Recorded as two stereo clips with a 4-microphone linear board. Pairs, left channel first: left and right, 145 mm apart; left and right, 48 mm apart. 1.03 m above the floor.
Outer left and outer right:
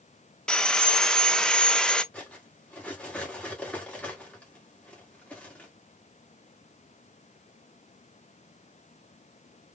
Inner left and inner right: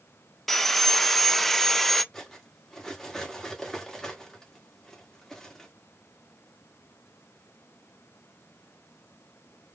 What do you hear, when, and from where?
0.5 s sawing: 5° left (ahead or behind), 0.5 m
2.1 s cutlery clinking: 10° left (ahead or behind), 1.6 m